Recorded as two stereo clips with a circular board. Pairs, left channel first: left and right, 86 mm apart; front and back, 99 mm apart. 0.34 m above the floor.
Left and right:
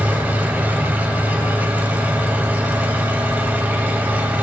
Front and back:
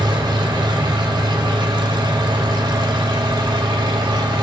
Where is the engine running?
155° right, 1.0 m.